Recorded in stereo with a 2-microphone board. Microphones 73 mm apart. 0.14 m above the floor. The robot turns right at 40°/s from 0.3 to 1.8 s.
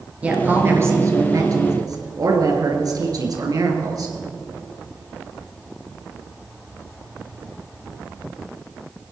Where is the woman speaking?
160° right, 2.5 m; by 4.2 s 100° right, 2.5 m.